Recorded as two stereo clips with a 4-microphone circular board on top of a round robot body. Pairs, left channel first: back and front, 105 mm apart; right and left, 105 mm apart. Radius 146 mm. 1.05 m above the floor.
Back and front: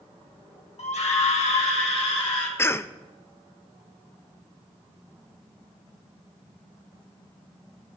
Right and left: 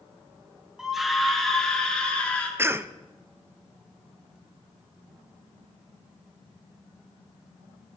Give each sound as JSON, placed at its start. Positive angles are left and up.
{"t": 0.8, "sound": "a scream", "azimuth_deg": 175, "distance_m": 1.5}
{"t": 2.6, "sound": "a cough", "azimuth_deg": 135, "distance_m": 0.6}